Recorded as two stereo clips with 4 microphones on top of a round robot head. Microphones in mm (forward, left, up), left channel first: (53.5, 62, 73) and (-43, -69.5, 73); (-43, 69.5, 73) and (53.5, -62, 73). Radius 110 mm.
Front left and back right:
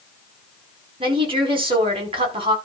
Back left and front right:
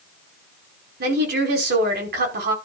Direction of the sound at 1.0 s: 70° right.